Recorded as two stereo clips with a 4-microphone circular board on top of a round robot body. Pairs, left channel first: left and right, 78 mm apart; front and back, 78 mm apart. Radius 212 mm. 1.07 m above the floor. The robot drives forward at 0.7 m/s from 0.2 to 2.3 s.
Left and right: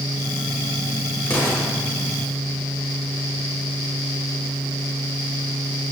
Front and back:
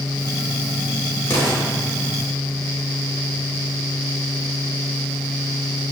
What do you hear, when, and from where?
1.3 s an explosion: 30° left, 2.5 m